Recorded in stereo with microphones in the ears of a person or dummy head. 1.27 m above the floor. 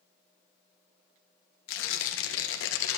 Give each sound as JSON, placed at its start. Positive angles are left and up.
{"t": 1.7, "sound": "tearing paper", "side_deg": 70, "distance_m": 1.4}